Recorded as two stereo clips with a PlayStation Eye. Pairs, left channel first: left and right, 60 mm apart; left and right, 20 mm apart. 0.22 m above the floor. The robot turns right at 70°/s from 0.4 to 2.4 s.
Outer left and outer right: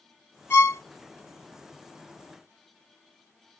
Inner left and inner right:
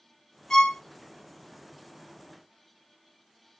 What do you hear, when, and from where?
0.5 s a violin: 40° left (ahead or behind), 0.7 m; by 0.8 s 45° left (ahead or behind), 0.7 m